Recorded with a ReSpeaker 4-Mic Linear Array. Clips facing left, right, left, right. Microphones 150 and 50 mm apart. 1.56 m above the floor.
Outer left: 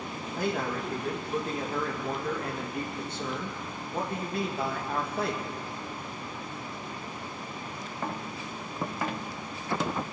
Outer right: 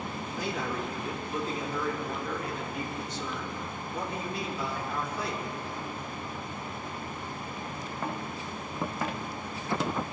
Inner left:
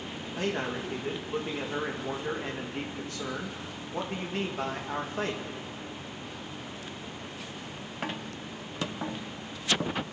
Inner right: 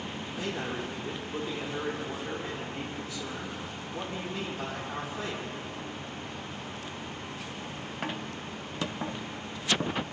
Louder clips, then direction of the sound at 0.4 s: Outer left 3 dB, inner left 3 dB; 50° left (ahead or behind).